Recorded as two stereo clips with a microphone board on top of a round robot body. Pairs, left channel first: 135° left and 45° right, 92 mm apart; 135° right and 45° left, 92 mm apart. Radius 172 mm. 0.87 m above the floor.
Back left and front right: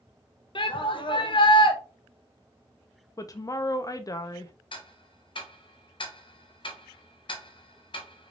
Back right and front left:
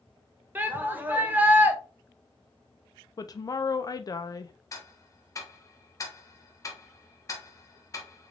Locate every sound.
0.6 s a shout: 115° left, 1.4 m
3.2 s a woman speaking: 175° right, 0.5 m
4.7 s ticking: 170° left, 1.0 m